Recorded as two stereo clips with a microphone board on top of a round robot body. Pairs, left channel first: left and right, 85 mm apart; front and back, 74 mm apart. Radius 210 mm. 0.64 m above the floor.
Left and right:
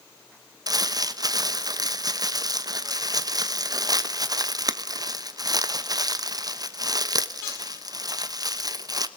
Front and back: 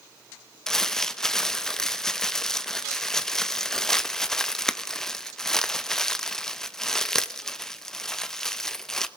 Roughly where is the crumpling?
Right.